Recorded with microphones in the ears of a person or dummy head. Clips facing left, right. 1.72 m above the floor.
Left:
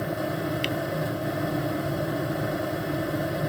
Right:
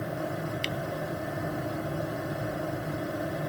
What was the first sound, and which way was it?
A finger snap, centre (ahead or behind).